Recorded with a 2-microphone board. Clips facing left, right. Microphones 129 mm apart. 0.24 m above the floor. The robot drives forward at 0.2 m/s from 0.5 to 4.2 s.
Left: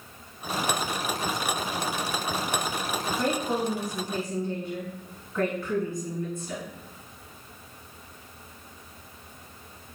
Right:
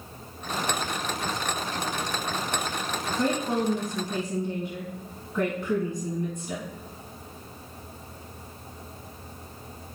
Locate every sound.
3.2 s a woman speaking: 20° right (ahead or behind), 1.9 m; by 6.6 s 15° right (ahead or behind), 2 m